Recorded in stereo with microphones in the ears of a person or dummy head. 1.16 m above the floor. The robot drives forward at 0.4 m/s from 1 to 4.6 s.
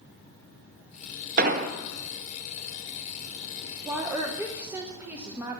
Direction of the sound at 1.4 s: 45° right (ahead or behind).